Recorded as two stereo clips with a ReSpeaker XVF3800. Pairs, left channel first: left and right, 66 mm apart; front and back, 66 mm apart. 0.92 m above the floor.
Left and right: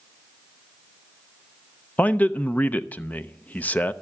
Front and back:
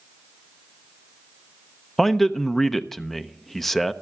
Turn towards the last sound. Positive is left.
turn(degrees=80)